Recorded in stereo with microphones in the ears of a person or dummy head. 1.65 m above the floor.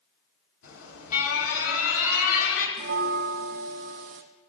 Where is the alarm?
75° left (ahead or behind), 1.8 m.